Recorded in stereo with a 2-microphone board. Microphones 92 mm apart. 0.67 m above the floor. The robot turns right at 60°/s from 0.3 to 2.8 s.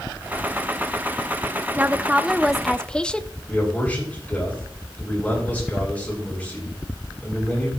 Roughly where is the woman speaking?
Ahead right.